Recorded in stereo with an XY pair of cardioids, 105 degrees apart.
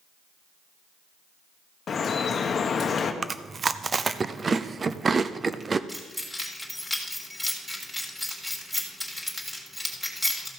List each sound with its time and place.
1.9 s dripping: 45° left, 1.1 m
3.2 s chewing: 30° right, 0.6 m
5.9 s keys jangling: 5° left, 3.5 m